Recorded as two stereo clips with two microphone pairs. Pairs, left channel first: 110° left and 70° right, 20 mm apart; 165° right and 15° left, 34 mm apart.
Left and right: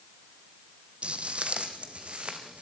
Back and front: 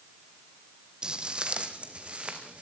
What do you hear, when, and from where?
1.0 s footsteps: 50° right, 1.8 m; by 2.6 s 40° right, 3.5 m